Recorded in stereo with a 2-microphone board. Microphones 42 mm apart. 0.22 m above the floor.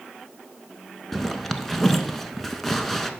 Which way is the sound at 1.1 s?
5° left (ahead or behind).